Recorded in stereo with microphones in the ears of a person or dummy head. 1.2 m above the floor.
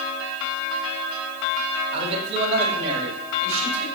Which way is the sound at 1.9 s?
30° right (ahead or behind).